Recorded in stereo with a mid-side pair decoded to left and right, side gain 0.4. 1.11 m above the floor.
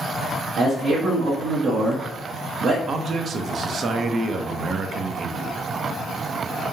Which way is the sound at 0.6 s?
65° right.